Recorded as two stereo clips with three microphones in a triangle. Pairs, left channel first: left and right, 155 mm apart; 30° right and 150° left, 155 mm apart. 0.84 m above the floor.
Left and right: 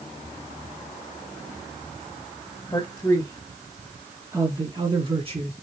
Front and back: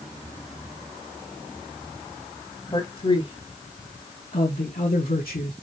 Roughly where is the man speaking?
Ahead.